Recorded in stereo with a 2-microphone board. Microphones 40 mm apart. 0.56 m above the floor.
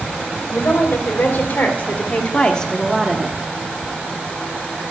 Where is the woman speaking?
65° left (ahead or behind), 3.5 m; by 3.4 s 25° right (ahead or behind), 1.3 m.